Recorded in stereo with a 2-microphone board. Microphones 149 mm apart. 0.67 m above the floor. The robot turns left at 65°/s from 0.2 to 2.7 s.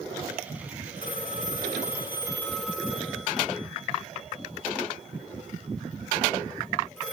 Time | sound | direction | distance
1.0 | a phone ringing | 70° left (ahead or behind) | 5 m